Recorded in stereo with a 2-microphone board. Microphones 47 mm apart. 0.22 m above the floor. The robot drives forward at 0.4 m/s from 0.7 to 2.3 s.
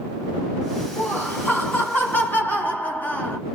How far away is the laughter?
About 1.8 m.